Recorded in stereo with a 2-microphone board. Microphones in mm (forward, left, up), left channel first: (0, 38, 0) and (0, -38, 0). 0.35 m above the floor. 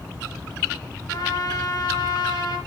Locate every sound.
1.1 s a trumpet: 70° left (ahead or behind), 3.5 m